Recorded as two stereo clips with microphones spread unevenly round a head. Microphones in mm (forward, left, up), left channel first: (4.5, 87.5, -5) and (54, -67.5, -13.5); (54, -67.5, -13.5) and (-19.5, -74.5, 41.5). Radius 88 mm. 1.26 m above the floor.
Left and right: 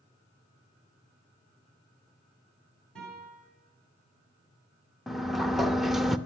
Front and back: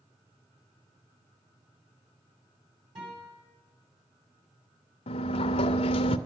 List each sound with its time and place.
3.0 s a guitar: 165° right, 7.5 m
5.1 s a sliding door: 20° left, 0.6 m